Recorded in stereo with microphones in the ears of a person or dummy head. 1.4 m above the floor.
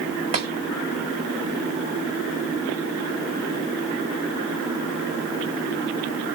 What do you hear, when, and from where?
0.3 s tapping: 35° right (ahead or behind), 2 m